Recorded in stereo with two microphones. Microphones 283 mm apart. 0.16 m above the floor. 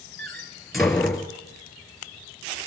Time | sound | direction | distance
0.2 | a door slam | centre (ahead or behind) | 3 m